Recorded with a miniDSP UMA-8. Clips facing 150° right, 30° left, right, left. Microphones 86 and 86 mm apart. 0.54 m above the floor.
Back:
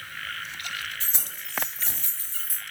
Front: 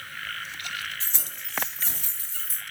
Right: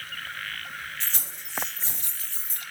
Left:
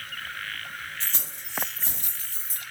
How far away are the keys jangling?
About 1.5 m.